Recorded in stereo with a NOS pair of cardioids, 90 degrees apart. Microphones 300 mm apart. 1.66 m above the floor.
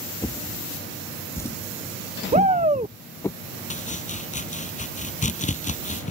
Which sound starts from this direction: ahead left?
Chopping, at 3.7 s.